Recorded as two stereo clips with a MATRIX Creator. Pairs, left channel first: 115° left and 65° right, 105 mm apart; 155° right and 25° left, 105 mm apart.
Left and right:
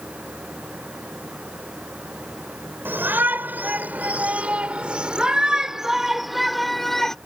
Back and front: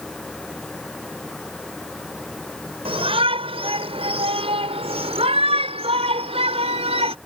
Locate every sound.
2.9 s a shout: straight ahead; by 7.2 s 25° left